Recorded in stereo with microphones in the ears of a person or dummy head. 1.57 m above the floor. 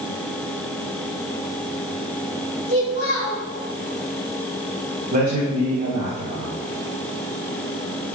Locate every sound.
2.7 s a child speaking: 35° right (ahead or behind), 2 m
5.1 s a man speaking: 45° right (ahead or behind), 1.6 m